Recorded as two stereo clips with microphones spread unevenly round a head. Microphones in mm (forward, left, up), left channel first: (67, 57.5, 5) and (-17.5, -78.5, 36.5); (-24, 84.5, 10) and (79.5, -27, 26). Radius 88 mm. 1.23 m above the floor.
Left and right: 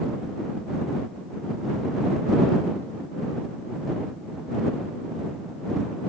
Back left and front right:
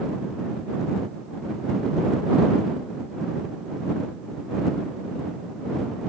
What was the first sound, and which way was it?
Only background noise.